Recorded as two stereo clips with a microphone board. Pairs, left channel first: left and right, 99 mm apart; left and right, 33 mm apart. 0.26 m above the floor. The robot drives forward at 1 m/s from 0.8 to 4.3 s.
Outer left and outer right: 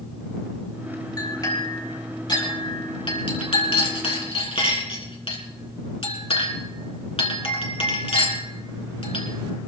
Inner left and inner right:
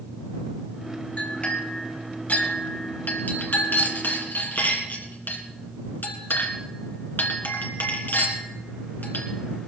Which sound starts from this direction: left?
A clink, at 1.2 s.